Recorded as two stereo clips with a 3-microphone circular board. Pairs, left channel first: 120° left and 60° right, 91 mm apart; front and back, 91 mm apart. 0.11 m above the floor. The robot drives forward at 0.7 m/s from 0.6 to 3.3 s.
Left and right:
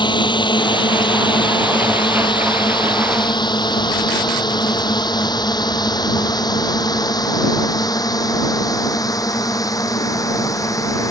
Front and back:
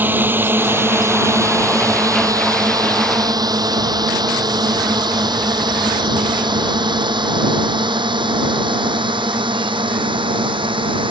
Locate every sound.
0.0 s a drone: 115° left; by 11.1 s 170° left